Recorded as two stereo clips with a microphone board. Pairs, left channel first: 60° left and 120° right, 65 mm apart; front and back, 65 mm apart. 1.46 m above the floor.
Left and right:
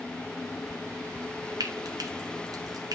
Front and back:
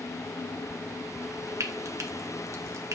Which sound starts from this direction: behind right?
Frying, at 1.6 s.